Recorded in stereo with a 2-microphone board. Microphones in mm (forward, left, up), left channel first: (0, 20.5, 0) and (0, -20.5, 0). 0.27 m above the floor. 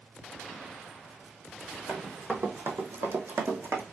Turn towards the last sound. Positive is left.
turn(degrees=-45)  # may be behind; listen again after turning